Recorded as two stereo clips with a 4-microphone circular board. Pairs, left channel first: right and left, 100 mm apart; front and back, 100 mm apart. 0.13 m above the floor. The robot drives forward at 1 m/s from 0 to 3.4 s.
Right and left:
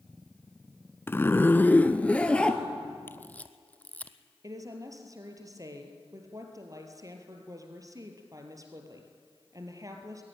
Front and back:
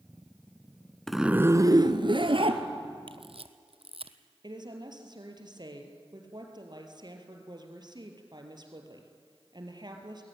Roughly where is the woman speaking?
Behind left.